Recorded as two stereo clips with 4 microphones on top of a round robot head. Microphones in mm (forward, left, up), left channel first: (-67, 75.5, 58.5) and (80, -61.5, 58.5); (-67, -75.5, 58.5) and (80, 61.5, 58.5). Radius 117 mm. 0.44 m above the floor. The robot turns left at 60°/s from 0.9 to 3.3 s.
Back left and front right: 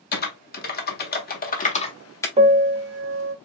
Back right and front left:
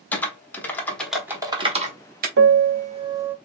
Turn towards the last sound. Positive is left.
turn(degrees=-40)